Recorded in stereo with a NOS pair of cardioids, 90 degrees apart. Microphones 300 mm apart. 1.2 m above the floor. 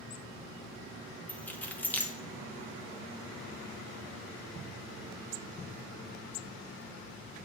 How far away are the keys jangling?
About 0.7 m.